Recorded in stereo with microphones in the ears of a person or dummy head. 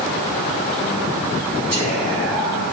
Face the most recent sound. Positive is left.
turn(degrees=25)  # may be behind; listen again after turning